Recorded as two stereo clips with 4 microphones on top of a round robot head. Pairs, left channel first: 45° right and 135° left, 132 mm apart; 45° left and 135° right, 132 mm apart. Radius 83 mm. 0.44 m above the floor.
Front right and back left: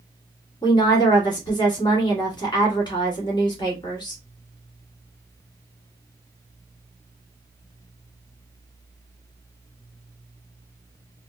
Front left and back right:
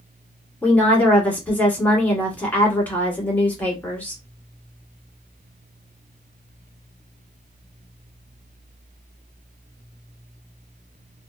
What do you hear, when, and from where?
0.6 s a woman speaking: 20° right, 1.5 m